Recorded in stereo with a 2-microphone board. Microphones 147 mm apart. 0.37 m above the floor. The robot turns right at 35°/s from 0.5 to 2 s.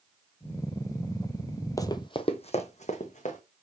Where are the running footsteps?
25° left (ahead or behind), 0.6 m; by 3.4 s 60° left (ahead or behind), 2.0 m.